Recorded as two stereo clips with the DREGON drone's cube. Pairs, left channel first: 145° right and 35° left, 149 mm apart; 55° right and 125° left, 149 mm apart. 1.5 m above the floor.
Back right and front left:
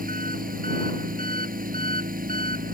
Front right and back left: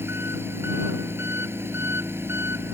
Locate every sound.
0.0 s an engine running: 50° left